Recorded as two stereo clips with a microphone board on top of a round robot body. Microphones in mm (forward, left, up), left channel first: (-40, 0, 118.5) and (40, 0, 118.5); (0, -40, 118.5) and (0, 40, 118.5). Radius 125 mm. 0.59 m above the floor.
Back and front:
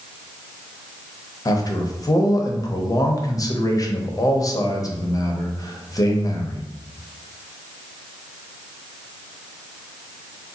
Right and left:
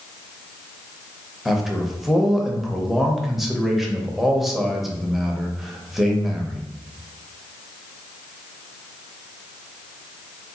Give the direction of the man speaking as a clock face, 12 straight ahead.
6 o'clock.